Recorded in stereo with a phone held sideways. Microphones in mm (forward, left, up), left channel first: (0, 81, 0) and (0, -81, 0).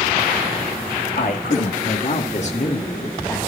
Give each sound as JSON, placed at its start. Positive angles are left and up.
{"t": 1.2, "sound": "a man speaking", "side_deg": 60, "distance_m": 1.7}